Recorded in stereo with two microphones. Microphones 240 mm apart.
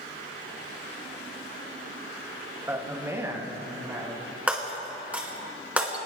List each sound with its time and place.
2.7 s a man speaking: 10° right (ahead or behind), 1.7 m; by 4.3 s 15° right (ahead or behind), 3.5 m
4.5 s breaking glass: 5° right (ahead or behind), 2.0 m